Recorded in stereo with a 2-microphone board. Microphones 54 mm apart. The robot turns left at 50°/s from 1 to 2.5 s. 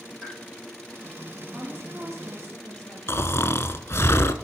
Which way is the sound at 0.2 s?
5° left (ahead or behind).